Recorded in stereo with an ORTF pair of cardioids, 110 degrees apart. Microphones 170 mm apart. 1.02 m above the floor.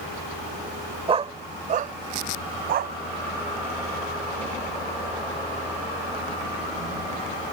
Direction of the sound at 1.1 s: 35° right.